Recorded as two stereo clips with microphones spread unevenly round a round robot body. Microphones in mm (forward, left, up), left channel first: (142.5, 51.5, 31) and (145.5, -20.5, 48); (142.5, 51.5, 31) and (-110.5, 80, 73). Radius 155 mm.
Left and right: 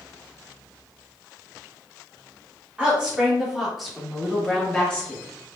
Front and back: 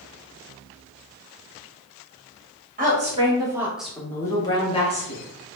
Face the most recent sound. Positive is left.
turn(degrees=35)